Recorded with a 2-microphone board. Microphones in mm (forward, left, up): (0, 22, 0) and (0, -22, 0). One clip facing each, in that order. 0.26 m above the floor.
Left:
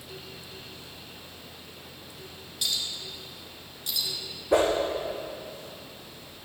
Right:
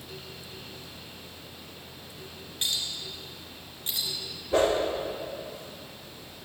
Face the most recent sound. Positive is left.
turn(degrees=90)